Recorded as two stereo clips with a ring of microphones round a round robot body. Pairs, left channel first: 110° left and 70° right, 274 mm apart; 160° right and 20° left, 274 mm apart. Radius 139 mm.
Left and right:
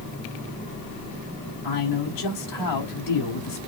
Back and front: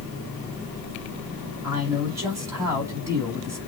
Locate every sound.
1.6 s a man speaking: 100° left, 4.5 m